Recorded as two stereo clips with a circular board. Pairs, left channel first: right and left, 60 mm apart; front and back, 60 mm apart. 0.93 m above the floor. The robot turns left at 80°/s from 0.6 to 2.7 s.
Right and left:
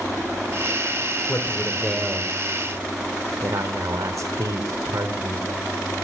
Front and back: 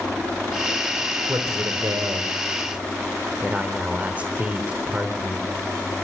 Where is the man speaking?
135° right, 2.5 m; by 5.5 s 110° left, 2.5 m.